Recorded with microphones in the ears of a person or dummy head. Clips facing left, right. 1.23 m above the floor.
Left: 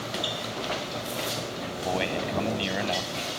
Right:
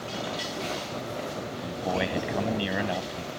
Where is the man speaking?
5° right (ahead or behind).